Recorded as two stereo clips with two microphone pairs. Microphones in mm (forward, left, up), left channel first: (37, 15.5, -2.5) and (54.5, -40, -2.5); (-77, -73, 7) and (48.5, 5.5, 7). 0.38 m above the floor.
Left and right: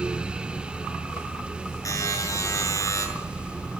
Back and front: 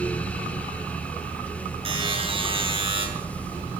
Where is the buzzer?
85° left, 6 m.